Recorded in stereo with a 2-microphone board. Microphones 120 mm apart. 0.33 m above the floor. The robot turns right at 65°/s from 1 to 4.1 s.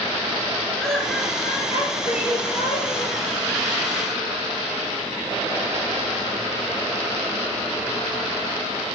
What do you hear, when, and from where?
0.8 s laughter: 5° left, 4.5 m; by 3.1 s 145° left, 4.5 m